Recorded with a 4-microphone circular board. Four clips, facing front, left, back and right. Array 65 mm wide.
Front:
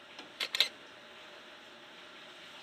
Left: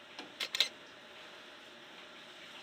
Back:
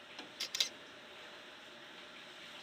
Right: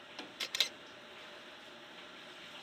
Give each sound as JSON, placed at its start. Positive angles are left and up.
{"t": 0.4, "sound": "a camera shutter", "azimuth_deg": 10}